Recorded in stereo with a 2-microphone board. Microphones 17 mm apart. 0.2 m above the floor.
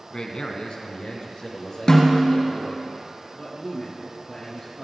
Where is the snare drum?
40° left (ahead or behind), 2.5 m.